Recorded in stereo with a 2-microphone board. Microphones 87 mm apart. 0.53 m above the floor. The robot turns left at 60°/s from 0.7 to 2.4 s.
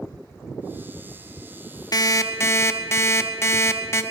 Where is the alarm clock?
45° left (ahead or behind), 0.6 m; by 4.0 s 30° left (ahead or behind), 0.6 m.